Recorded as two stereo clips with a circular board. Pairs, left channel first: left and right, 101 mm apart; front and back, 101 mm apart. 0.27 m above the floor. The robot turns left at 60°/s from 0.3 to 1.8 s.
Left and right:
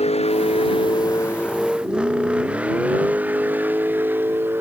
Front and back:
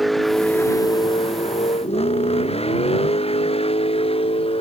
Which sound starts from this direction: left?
A vehicle, at 0.0 s.